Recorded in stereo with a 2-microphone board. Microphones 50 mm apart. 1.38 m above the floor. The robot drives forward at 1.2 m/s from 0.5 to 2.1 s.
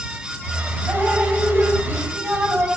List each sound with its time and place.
0.9 s dripping: 35° right (ahead or behind), 5.5 m; by 2.7 s 45° right (ahead or behind), 4.5 m